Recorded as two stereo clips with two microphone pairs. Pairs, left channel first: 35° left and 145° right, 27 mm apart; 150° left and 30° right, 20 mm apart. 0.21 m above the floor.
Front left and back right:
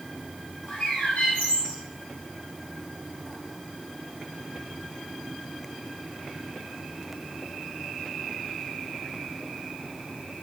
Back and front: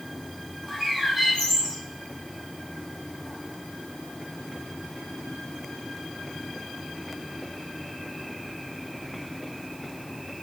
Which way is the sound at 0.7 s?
55° left.